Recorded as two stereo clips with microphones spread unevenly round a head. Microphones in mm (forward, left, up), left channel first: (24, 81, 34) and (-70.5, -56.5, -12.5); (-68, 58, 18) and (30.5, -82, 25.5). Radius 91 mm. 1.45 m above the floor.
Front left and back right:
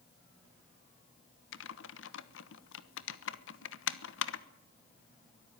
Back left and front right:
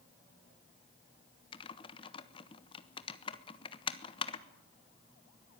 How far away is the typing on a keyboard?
About 1.2 m.